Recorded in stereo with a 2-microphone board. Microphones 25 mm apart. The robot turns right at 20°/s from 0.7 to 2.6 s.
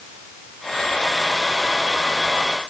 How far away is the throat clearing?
No throat clearing in this recording.